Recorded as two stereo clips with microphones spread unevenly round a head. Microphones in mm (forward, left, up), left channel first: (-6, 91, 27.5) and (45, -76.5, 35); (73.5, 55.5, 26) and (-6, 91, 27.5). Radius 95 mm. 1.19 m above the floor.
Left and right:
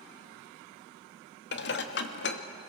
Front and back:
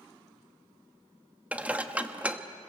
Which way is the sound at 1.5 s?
80° left.